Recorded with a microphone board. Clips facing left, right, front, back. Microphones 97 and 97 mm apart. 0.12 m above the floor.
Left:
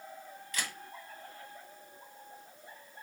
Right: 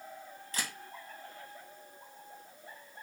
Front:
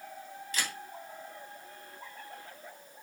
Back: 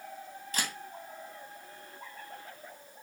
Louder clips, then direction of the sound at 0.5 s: Even, back 1 dB; 145° right.